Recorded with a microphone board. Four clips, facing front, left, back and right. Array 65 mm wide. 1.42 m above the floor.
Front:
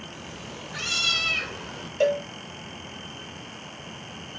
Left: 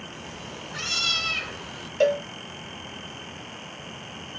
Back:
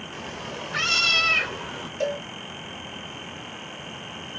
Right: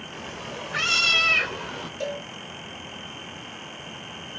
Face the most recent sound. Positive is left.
turn(degrees=60)